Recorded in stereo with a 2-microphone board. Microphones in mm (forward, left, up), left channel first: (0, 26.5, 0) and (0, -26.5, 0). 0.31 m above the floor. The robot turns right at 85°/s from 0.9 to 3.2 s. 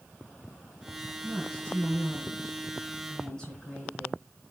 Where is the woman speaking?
5° right, 3.5 m; by 4.2 s 165° left, 3.5 m.